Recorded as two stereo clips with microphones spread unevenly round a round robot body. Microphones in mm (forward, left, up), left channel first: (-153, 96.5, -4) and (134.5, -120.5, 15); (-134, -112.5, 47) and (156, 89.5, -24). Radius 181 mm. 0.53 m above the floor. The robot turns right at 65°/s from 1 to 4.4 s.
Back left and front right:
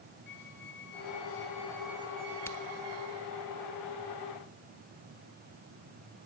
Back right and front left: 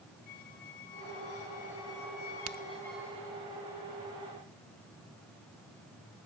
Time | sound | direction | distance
0.3 | a squeak | straight behind | 2.5 m
2.5 | a crack | 60° left | 0.8 m